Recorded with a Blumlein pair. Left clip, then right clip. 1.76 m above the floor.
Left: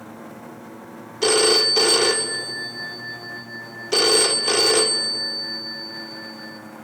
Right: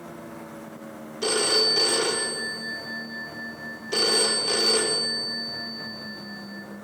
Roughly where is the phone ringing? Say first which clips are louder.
Left 5 dB; left.